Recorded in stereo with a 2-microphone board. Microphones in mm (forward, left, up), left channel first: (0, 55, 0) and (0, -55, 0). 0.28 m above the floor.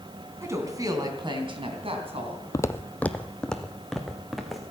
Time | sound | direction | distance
0.4 | a woman speaking | 25° right (ahead or behind) | 3 m
2.5 | footsteps | 30° left (ahead or behind) | 0.5 m